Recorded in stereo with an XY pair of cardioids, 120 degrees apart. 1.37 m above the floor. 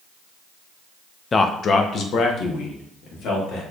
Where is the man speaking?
30° left, 0.6 m; by 3.6 s 70° left, 1.9 m.